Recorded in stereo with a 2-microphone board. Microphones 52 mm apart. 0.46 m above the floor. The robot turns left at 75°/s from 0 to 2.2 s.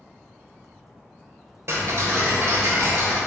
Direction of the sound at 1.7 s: 60° right.